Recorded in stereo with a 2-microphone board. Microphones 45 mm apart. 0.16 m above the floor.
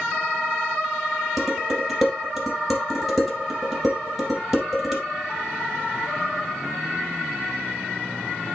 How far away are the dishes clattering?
About 3.5 m.